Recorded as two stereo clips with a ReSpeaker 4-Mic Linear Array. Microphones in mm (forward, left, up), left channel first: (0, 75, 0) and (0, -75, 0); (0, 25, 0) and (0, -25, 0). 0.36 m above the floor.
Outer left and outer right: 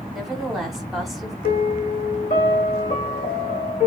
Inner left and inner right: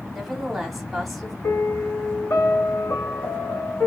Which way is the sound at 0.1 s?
Centre (ahead or behind).